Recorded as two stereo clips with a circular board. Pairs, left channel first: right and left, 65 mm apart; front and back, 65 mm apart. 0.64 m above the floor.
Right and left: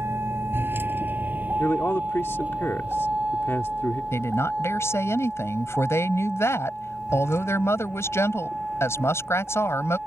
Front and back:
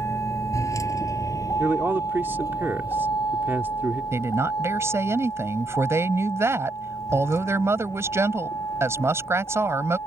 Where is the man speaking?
135° right.